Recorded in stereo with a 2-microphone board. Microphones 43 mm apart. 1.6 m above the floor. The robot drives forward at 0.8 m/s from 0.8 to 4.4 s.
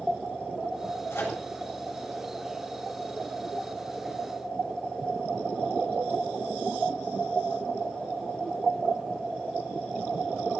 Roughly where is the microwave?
Left.